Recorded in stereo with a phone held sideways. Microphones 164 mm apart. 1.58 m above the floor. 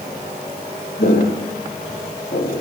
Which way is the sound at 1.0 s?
75° left (ahead or behind).